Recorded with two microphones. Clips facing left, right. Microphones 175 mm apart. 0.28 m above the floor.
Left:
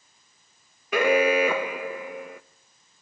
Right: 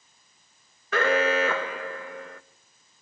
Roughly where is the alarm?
Centre.